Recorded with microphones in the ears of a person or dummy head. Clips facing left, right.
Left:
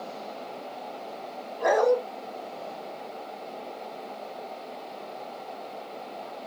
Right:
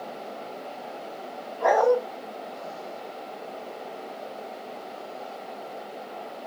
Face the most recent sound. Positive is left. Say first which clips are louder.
# right 1 dB
turn(degrees=30)  # may be behind; listen again after turning